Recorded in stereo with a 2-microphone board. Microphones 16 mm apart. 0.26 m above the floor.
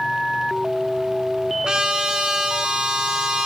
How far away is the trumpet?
About 3 m.